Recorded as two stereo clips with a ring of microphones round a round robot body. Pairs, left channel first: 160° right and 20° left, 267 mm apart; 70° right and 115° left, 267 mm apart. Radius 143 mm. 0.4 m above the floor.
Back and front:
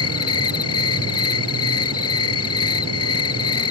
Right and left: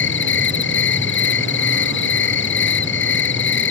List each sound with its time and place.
0.0 s an insect: 115° right